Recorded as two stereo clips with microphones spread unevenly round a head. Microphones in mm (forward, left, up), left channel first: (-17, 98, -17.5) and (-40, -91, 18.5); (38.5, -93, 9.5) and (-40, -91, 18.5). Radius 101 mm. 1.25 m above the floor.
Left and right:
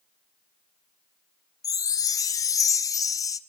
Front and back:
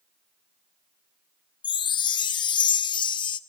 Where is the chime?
5° left, 0.7 m.